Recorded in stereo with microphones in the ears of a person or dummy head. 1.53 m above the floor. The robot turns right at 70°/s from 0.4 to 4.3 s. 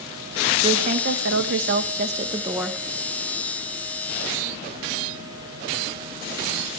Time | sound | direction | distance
0.6 | a woman speaking | 150° right | 1.3 m